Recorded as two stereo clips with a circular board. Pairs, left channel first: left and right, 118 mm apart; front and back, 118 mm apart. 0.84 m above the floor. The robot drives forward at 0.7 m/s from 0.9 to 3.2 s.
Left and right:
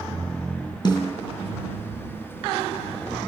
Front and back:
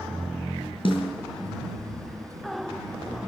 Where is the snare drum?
40° left, 4.5 m.